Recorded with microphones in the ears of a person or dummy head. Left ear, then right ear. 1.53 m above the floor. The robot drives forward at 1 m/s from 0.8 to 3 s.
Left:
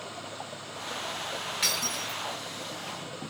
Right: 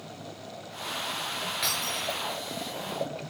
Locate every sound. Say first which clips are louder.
1.6 s breaking glass: left 2 dB; 15° left (ahead or behind), 7 m